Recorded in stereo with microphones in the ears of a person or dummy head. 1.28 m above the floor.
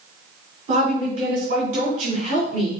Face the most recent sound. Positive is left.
turn(degrees=-40)  # may be behind; listen again after turning